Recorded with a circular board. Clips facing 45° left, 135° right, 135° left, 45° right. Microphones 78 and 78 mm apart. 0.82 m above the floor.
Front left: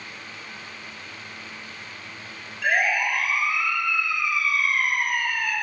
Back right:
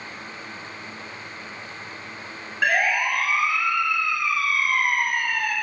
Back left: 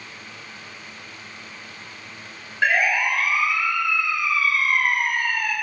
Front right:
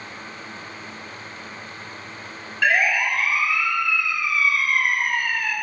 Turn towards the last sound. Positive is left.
turn(degrees=-170)